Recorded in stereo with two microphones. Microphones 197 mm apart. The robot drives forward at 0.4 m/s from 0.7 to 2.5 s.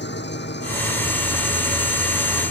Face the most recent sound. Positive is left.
turn(degrees=60)  # may be behind; listen again after turning